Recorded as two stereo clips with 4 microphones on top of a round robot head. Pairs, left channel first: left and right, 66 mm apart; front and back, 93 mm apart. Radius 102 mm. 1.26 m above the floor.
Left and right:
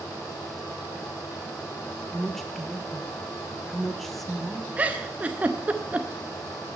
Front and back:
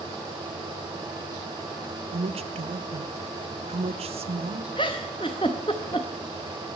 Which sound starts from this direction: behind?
A woman speaking, at 2.1 s.